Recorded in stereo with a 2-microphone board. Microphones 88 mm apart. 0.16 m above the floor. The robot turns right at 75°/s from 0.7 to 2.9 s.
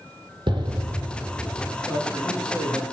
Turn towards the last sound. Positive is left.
turn(degrees=-95)